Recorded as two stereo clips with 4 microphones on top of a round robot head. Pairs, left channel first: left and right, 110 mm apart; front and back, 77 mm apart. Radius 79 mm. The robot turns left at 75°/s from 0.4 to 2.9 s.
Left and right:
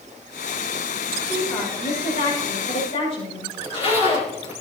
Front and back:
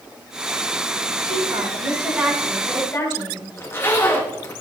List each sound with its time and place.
1.2 s a woman speaking: 170° right, 7 m; by 3.5 s 65° left, 7 m
3.6 s a zipper: 60° left, 4.5 m